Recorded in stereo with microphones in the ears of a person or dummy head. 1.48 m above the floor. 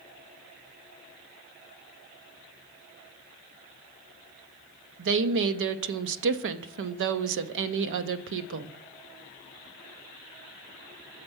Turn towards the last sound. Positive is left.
turn(degrees=-55)  # may be behind; listen again after turning